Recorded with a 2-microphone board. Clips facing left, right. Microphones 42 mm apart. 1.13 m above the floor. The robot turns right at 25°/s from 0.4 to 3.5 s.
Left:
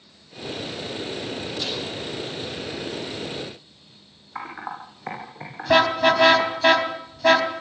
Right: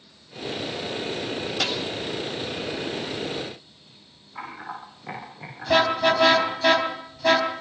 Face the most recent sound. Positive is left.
turn(degrees=20)  # may be behind; listen again after turning